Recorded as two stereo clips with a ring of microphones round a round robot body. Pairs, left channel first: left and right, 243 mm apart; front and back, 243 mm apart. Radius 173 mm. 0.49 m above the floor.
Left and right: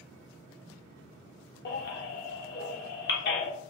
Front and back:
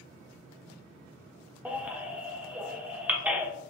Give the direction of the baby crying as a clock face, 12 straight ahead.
9 o'clock.